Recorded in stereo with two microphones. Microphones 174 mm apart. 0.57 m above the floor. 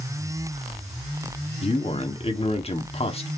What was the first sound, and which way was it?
A man speaking, 35° left (ahead or behind).